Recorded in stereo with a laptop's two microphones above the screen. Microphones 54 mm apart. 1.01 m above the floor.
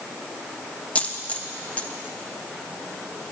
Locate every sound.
0.9 s a dropped coin: 25° left (ahead or behind), 0.5 m